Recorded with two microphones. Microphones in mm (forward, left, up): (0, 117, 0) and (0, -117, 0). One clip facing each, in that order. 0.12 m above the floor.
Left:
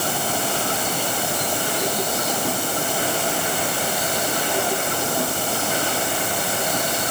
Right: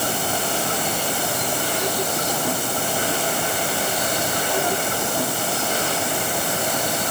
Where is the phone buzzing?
I don't hear a phone buzzing.